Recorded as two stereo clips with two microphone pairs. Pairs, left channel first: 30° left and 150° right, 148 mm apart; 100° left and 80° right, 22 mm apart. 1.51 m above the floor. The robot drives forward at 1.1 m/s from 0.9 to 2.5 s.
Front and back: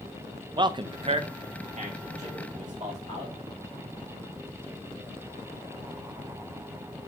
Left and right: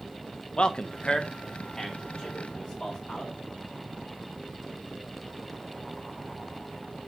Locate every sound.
0.6 s a man speaking: 150° left, 0.5 m; by 3.3 s 175° left, 2 m